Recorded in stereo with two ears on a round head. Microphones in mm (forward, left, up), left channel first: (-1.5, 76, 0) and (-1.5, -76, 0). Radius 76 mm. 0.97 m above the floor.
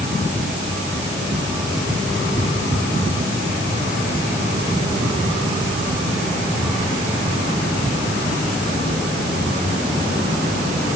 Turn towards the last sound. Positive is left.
No sound to turn to.